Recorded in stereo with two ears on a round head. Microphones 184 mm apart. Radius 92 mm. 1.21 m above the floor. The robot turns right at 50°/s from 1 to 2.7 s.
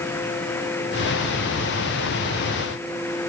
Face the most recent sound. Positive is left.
No sound to turn to.